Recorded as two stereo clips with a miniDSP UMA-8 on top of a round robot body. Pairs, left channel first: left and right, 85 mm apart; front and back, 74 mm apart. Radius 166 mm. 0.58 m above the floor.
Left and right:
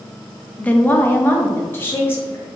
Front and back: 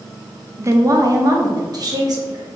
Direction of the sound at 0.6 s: 160° left.